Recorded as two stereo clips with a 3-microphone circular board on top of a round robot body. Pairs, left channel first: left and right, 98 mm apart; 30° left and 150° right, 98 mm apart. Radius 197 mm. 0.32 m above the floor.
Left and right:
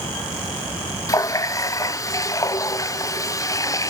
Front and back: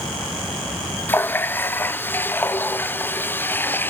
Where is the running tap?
80° left, 0.6 m.